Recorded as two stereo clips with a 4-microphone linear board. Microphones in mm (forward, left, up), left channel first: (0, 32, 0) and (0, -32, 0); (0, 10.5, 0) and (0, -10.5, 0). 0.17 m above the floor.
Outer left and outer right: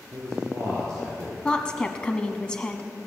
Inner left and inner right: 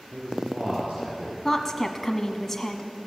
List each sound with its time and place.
0.1 s a man speaking: 50° right (ahead or behind), 4 m
1.4 s a woman speaking: 15° left (ahead or behind), 1.0 m